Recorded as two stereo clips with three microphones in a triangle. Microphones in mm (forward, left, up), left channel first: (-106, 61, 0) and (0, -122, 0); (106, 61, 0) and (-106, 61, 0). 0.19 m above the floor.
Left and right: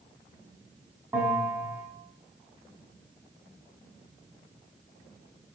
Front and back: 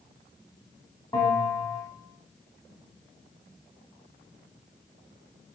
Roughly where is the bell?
Ahead.